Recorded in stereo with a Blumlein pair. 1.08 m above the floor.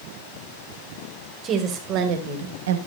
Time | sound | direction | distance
1.4 | a woman speaking | 25° right | 2.5 m